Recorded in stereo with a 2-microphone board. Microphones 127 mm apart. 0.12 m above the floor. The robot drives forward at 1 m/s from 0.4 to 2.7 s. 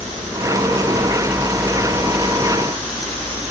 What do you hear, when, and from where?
Only background noise.